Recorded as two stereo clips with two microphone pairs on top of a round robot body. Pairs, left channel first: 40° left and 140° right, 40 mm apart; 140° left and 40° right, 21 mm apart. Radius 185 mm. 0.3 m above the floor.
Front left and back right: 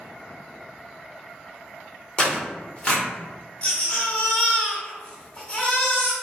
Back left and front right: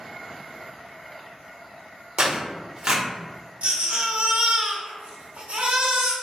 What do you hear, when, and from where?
2.2 s tearing paper: 20° right, 1.6 m
3.6 s a baby crying: 30° right, 1.6 m